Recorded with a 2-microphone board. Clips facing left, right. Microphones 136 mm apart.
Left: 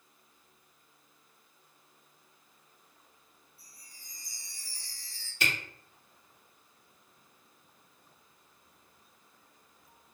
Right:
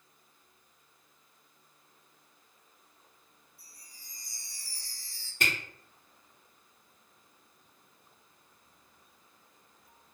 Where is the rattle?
I don't hear a rattle.